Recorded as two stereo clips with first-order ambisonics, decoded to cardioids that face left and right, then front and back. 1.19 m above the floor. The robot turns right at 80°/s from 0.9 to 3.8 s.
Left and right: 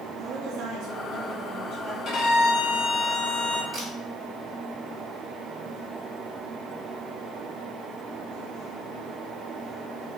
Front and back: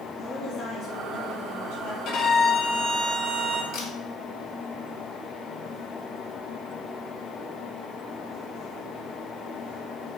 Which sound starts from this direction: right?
A woman speaking, at 0.1 s.